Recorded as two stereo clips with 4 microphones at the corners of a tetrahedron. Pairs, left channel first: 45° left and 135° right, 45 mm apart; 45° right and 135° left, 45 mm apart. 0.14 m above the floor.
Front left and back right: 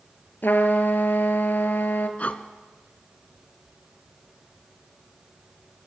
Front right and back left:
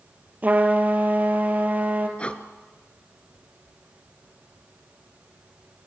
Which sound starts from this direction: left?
A trumpet, at 0.4 s.